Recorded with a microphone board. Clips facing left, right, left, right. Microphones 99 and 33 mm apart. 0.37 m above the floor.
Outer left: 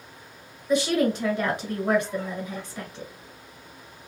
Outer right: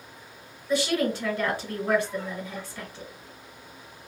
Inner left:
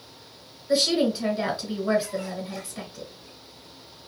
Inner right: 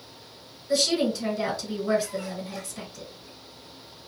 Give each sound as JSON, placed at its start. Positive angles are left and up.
{"t": 0.7, "sound": "a woman speaking", "side_deg": 20, "distance_m": 1.8}